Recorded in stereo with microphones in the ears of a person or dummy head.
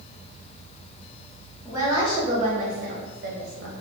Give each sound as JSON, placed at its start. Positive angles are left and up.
{"t": 1.6, "sound": "a woman speaking", "side_deg": -10, "distance_m": 1.0}